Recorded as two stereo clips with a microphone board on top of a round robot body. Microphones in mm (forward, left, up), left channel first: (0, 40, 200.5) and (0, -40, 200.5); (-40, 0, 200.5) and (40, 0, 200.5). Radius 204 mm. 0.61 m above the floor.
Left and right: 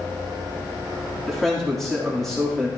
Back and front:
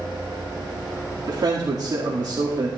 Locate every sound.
1.3 s a man speaking: straight ahead, 2 m